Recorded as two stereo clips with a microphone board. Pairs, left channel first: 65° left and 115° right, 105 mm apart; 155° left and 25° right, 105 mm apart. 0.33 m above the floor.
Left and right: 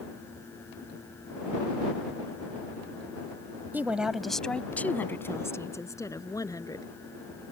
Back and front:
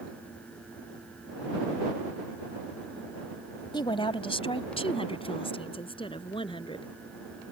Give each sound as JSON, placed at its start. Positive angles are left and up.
{"t": 3.7, "sound": "a woman speaking", "azimuth_deg": 180}